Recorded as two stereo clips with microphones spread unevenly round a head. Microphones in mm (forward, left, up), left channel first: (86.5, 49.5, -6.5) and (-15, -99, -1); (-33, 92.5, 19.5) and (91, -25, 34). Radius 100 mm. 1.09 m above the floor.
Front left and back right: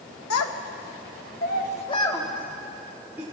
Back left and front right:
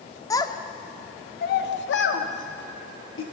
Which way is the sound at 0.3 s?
65° left.